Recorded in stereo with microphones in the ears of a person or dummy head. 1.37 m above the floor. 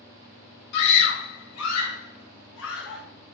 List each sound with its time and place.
0.7 s a scream: 55° left (ahead or behind), 2 m; by 3.0 s 65° left (ahead or behind), 3 m